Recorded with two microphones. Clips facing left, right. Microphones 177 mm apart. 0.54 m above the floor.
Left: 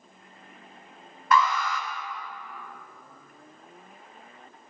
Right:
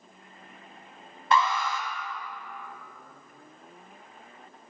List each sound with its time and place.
1.3 s an alarm: 25° right (ahead or behind), 1.1 m